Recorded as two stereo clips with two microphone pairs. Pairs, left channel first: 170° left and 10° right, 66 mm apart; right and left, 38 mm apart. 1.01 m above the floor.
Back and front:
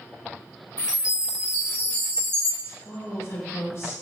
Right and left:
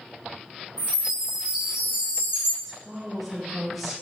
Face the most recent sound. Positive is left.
turn(degrees=180)